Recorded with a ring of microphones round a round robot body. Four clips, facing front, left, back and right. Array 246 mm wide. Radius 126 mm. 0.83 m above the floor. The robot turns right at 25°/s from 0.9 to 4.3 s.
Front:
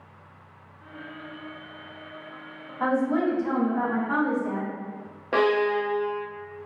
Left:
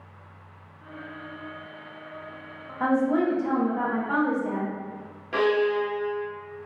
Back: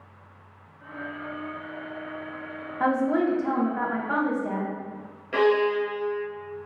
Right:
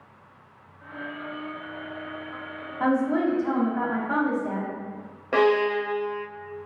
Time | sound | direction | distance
2.8 | a woman speaking | 170° left | 0.8 m
5.3 | a violin | 35° right | 0.6 m